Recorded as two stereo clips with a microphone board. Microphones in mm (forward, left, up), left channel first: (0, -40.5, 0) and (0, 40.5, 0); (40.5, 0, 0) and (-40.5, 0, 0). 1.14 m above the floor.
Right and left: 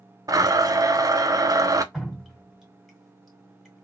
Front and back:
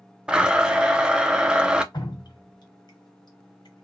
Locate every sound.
0.3 s a blender: 105° left, 0.5 m
1.9 s dripping: straight ahead, 1.6 m